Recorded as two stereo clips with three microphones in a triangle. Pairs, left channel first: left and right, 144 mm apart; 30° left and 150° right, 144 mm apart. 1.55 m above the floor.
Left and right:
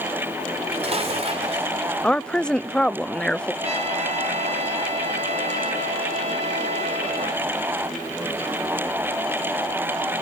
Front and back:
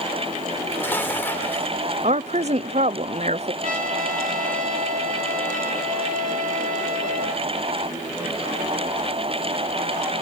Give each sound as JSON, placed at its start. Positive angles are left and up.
{"t": 0.5, "sound": "dishes clattering", "azimuth_deg": -45, "distance_m": 3.5}
{"t": 2.0, "sound": "a woman speaking", "azimuth_deg": 175, "distance_m": 0.5}
{"t": 3.6, "sound": "a trumpet", "azimuth_deg": -135, "distance_m": 4.5}